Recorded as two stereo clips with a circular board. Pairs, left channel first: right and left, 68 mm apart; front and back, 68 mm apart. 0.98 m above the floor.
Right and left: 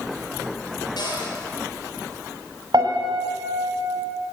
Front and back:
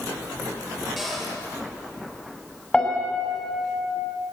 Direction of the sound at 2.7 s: 75° left.